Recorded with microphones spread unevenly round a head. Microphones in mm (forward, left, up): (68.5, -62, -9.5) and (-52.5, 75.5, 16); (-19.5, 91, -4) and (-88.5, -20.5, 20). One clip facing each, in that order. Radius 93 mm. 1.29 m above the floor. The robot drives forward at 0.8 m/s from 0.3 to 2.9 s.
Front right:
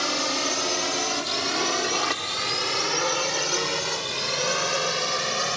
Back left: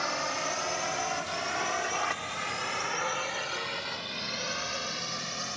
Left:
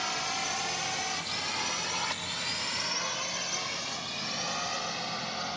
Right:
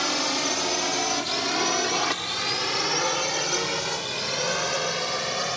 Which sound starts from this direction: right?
A drone, at 0.0 s.